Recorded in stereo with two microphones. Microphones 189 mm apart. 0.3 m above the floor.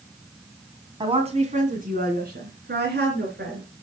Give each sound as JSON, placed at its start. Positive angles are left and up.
{"t": 1.0, "sound": "a woman speaking", "side_deg": -25, "distance_m": 2.0}